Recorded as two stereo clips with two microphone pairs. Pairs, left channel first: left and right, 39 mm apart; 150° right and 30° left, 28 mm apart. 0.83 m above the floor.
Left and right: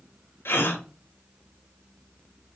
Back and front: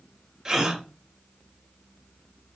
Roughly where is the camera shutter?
No camera shutter in this recording.